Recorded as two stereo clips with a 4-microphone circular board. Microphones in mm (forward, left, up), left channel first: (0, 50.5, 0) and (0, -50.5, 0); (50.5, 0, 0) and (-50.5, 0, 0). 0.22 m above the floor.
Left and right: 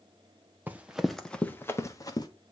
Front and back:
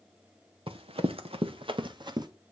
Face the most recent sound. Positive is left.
turn(degrees=135)